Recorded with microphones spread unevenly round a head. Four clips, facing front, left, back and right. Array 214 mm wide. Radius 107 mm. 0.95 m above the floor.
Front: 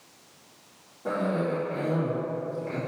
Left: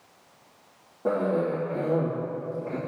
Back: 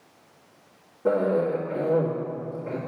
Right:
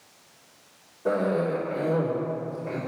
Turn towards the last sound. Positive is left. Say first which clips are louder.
# even, back 5 dB
turn(degrees=125)